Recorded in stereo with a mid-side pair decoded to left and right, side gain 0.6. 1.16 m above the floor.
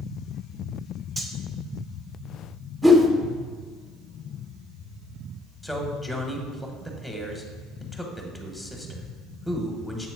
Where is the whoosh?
10° right, 1.0 m.